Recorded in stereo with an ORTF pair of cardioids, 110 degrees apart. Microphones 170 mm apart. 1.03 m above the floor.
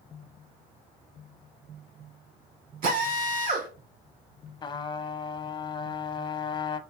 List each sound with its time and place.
2.8 s a drill: 55° right, 3 m
4.6 s a trumpet: 25° left, 0.6 m